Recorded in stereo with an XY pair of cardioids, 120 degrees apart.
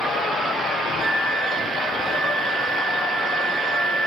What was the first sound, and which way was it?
A flute, 70° right.